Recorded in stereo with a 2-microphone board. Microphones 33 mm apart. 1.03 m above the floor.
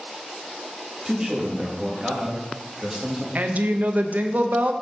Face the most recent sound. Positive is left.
turn(degrees=-55)  # may be behind; listen again after turning